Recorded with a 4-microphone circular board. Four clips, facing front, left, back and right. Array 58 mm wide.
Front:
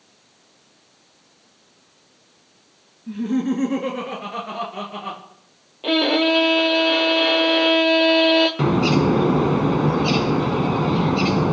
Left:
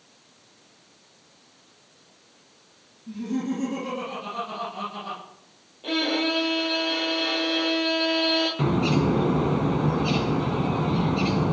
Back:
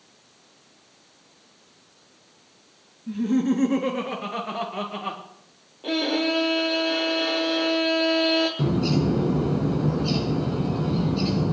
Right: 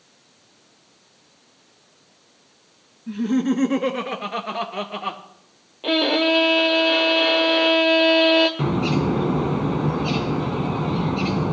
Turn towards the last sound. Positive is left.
turn(degrees=-5)